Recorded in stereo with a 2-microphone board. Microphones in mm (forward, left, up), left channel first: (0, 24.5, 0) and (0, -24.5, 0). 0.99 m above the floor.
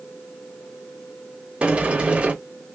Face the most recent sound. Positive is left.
turn(degrees=-25)  # may be behind; listen again after turning